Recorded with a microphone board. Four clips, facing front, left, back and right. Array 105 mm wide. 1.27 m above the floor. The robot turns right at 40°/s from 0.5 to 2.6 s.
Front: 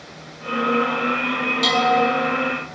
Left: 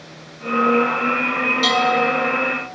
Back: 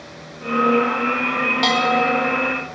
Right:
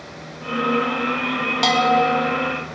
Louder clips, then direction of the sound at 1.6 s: Right 2 dB, front 1 dB; 120° right.